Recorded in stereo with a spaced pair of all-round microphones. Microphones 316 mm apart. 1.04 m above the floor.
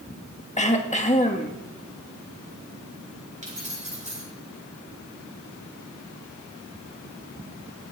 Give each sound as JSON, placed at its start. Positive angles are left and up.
{"t": 0.6, "sound": "throat clearing", "side_deg": 20, "distance_m": 1.5}
{"t": 3.4, "sound": "keys jangling", "side_deg": -25, "distance_m": 9.5}